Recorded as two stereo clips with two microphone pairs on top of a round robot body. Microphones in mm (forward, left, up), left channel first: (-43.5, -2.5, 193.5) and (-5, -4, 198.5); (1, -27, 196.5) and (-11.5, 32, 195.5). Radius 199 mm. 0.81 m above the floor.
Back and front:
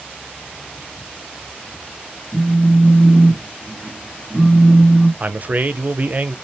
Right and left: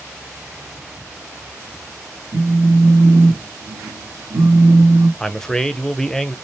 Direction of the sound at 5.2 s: 5° right.